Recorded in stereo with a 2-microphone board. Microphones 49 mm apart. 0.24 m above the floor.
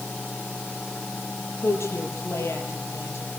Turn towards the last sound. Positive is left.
turn(degrees=70)  # may be behind; listen again after turning